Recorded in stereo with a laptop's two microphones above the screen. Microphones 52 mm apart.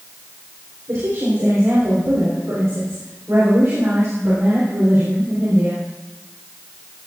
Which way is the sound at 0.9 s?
80° right.